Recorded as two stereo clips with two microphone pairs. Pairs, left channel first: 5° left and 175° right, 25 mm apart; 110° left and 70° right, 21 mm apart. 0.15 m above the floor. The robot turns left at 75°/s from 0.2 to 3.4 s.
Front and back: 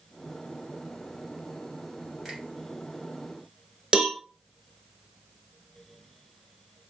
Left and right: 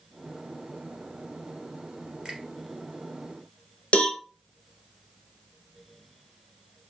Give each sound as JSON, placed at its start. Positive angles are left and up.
{"t": 2.2, "sound": "a finger snap", "azimuth_deg": -90, "distance_m": 1.4}
{"t": 3.9, "sound": "a cowbell", "azimuth_deg": 135, "distance_m": 0.6}